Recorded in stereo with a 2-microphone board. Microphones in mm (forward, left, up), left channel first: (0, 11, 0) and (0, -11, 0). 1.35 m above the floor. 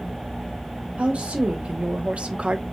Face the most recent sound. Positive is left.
turn(degrees=-55)  # may be behind; listen again after turning